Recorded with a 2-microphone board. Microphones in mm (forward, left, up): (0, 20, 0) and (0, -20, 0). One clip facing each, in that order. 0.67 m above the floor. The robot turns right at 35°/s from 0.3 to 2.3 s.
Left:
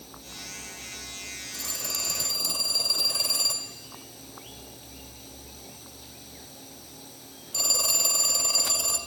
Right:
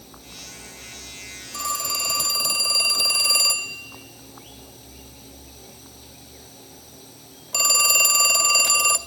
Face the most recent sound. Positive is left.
turn(degrees=-75)  # may be behind; listen again after turning